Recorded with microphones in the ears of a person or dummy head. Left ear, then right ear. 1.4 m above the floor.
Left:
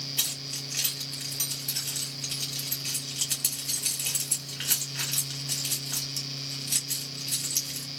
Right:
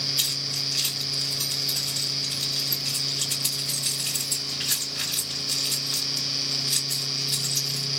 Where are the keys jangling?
25° left (ahead or behind), 2.5 m.